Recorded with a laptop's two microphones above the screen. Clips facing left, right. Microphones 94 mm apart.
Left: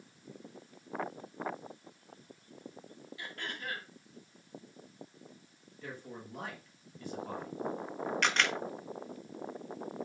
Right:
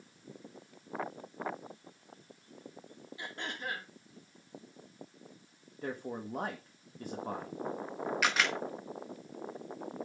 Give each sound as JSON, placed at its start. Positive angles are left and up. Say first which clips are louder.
{"t": 3.2, "sound": "throat clearing", "louder": "right 2 dB", "side_deg": -25, "distance_m": 1.7}
{"t": 5.8, "sound": "a man speaking", "louder": "right 7 dB", "side_deg": -40, "distance_m": 1.2}
{"t": 8.2, "sound": "a camera shutter", "louder": "even", "side_deg": -5, "distance_m": 1.3}